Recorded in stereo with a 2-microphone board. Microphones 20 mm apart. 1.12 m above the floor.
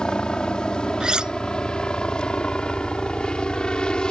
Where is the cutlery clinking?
50° right (ahead or behind).